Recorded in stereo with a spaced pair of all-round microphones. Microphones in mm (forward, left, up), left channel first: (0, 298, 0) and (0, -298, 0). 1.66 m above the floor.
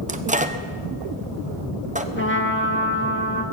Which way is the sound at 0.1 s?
15° right (ahead or behind).